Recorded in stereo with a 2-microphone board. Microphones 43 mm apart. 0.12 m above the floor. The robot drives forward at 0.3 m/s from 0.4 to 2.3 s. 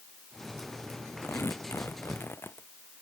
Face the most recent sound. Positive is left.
turn(degrees=70)  # may be behind; listen again after turning